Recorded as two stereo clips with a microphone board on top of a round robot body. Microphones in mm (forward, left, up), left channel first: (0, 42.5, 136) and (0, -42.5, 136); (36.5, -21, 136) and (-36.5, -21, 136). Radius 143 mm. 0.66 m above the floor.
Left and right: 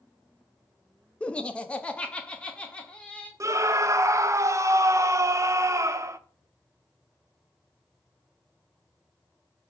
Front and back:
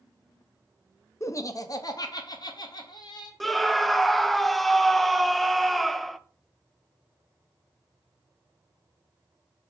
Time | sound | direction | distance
1.2 | laughter | 20° left | 0.9 m
3.4 | a scream | 85° right | 0.7 m